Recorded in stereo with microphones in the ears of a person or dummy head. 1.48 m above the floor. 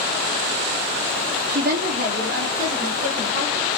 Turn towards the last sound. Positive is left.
turn(degrees=-45)  # may be behind; listen again after turning